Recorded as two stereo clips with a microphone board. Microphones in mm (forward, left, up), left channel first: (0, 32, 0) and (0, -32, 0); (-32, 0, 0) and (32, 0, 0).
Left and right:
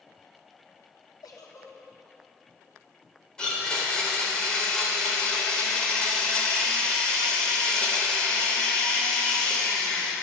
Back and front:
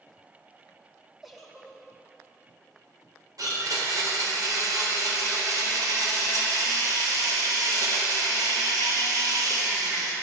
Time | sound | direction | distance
1.2 | a giggle | 85° left | 2.5 m
3.4 | a blender | 10° left | 4 m